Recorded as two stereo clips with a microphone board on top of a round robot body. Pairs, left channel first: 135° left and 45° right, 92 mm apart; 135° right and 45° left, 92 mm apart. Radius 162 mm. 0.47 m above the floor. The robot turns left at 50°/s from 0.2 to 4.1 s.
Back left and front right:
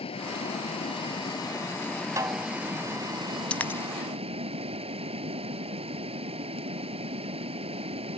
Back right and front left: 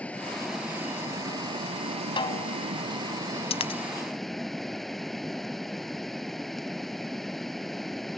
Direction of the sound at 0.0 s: 150° left.